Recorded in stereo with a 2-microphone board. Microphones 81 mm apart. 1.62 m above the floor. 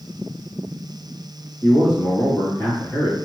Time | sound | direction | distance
1.6 | a man speaking | 65° left (ahead or behind) | 1.8 m